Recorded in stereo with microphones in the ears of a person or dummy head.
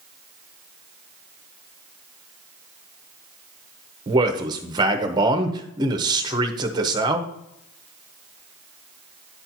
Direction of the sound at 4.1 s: 25° right (ahead or behind).